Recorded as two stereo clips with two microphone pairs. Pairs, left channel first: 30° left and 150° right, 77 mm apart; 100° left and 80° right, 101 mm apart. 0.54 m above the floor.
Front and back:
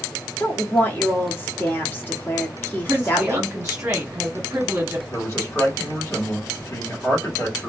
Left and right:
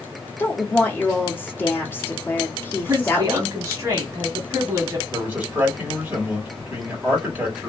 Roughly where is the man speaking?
Ahead.